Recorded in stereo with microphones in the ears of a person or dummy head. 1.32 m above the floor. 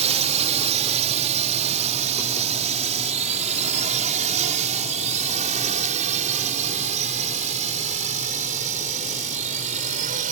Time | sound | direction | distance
0.0 | a drone | 35° right (ahead or behind) | ?